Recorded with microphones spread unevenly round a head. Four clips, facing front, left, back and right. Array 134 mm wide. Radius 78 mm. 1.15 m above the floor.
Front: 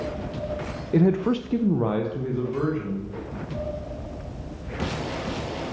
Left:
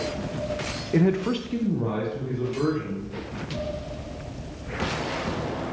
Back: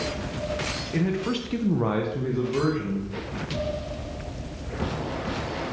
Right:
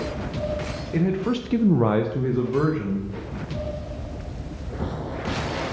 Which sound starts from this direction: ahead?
A man speaking, at 0.9 s.